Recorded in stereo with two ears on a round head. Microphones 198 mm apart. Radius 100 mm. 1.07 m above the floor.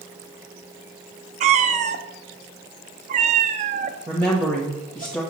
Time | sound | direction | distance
1.4 | a cat meowing | 35° right (ahead or behind) | 0.6 m
4.1 | a woman speaking | 10° left (ahead or behind) | 1.3 m